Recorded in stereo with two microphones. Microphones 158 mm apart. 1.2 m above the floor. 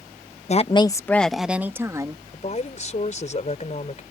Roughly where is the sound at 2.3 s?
Left.